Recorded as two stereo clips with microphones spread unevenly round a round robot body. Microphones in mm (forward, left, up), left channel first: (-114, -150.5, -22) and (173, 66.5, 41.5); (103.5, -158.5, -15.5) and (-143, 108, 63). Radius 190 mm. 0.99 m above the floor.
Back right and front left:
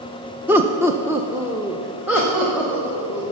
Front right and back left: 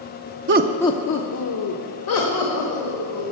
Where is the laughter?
140° left, 0.6 m; by 3.2 s 50° right, 3 m.